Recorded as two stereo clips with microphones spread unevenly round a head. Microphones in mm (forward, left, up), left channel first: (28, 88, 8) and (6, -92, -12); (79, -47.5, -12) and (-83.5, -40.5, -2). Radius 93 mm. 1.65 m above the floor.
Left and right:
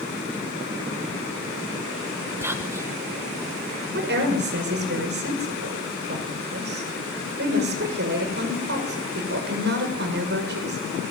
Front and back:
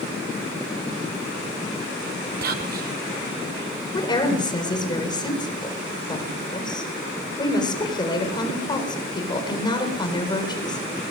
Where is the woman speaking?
65° right, 7.5 m.